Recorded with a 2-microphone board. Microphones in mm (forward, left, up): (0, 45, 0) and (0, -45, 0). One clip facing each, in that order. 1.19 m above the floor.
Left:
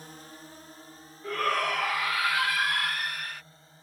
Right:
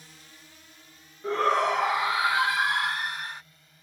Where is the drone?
45° left (ahead or behind); by 3.8 s 30° left (ahead or behind).